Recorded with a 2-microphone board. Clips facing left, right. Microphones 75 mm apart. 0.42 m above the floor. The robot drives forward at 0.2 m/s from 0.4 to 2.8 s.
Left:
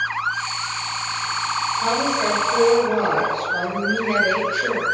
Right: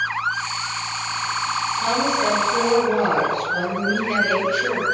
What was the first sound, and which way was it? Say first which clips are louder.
A woman speaking: right 1 dB; 25° left (ahead or behind).